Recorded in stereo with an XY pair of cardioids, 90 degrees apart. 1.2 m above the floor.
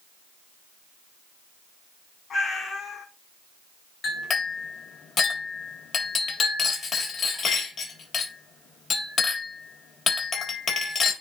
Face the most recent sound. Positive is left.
turn(degrees=55)